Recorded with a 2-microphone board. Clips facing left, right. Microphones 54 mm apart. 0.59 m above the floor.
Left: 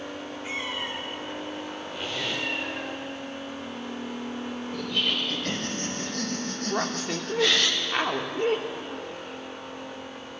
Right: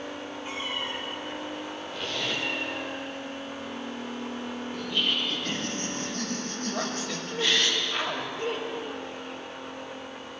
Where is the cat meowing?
80° left, 3 m.